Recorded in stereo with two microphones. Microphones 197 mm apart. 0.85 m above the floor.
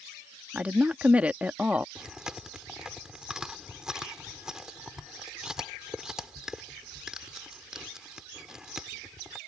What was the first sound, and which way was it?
A woman speaking, 5° right (ahead or behind).